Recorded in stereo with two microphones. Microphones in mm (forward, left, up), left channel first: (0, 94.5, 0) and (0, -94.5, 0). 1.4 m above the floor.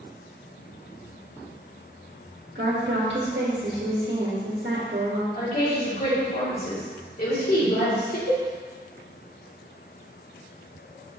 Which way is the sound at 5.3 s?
55° left (ahead or behind).